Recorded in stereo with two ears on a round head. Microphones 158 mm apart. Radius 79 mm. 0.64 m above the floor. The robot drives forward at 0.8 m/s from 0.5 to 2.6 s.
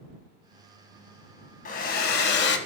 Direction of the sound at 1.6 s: 50° left (ahead or behind).